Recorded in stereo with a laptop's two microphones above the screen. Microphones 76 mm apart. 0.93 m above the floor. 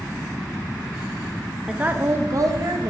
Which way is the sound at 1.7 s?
10° right (ahead or behind).